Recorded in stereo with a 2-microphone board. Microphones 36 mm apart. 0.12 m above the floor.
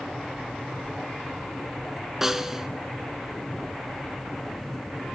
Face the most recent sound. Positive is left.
turn(degrees=-10)  # may be behind; listen again after turning